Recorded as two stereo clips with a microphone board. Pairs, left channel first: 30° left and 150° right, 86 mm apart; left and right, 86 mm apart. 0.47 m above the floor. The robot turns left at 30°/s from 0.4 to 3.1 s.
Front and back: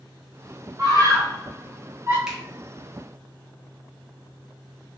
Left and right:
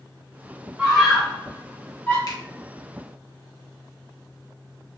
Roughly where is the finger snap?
Behind left.